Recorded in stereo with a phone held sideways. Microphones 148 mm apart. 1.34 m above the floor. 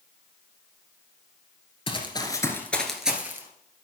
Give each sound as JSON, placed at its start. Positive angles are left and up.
{"t": 1.9, "sound": "running footsteps", "side_deg": 40, "distance_m": 1.6}